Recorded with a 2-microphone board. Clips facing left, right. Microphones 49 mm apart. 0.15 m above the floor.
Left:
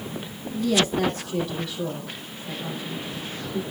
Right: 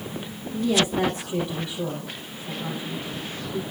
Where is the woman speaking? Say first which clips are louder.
Even; 30° right (ahead or behind), 3.5 m.